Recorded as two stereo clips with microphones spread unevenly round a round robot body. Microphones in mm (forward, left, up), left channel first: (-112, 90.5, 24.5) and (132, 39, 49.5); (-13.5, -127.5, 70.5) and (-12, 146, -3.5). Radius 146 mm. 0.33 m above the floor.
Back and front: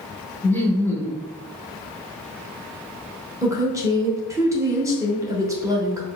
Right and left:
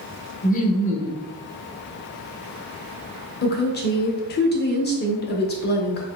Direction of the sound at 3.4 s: 80° right.